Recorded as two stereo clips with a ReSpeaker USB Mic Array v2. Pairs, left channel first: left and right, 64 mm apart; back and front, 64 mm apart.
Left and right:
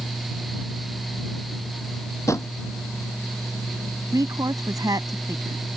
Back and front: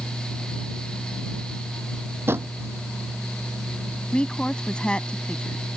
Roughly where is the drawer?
Ahead left.